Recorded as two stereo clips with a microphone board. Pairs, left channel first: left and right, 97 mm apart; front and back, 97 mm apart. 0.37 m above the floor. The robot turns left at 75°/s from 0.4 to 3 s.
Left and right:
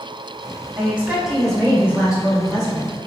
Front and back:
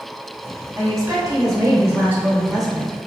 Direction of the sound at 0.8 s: 135° right.